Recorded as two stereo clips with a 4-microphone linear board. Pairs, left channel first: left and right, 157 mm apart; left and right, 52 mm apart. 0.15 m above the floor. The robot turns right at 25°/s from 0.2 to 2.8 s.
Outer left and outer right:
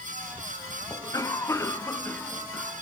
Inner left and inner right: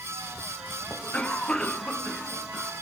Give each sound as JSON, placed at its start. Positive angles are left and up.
{"t": 0.9, "sound": "a cough", "side_deg": 20, "distance_m": 1.0}